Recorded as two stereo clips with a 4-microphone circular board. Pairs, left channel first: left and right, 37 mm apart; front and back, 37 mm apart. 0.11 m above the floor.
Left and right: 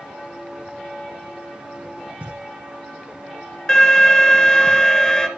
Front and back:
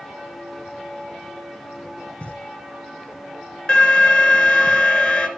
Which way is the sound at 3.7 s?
40° left.